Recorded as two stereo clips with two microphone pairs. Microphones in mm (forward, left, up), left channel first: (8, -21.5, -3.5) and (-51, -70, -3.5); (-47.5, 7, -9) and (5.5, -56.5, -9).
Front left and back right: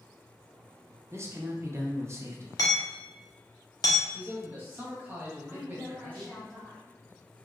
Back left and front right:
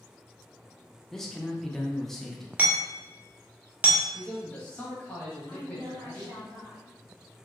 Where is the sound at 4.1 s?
165° right, 1.1 m.